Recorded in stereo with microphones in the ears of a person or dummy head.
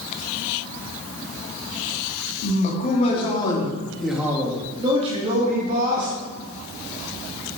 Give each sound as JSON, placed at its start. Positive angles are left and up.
{"t": 2.4, "sound": "a man speaking", "side_deg": 45, "distance_m": 3.5}